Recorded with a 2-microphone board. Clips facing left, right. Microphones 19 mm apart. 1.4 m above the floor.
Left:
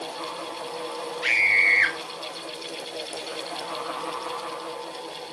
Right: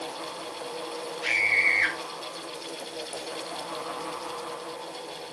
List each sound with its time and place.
1.2 s a scream: 35° left (ahead or behind), 2 m